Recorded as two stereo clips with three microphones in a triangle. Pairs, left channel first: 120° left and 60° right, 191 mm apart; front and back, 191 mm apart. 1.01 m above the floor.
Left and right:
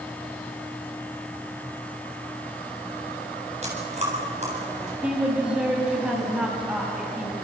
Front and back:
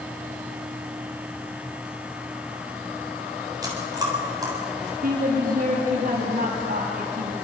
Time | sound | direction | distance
3.6 | chewing | 110° right | 7.5 m
5.0 | a woman speaking | 145° right | 7 m